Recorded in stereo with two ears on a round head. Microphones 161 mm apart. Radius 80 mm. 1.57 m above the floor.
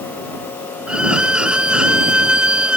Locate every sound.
0.9 s a violin: 5° right (ahead or behind)